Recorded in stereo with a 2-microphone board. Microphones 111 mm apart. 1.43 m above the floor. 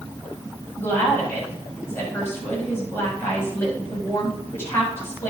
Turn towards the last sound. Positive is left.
turn(degrees=20)  # may be behind; listen again after turning